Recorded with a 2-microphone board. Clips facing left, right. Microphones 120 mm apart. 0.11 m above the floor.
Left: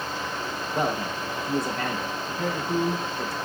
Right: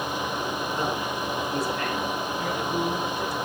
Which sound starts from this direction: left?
A man speaking, at 0.8 s.